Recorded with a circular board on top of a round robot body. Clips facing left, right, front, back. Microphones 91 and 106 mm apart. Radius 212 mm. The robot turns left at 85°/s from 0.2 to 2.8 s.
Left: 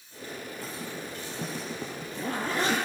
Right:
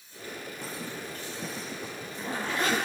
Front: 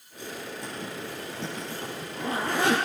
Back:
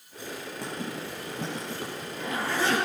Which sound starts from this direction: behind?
A zipper, at 0.6 s.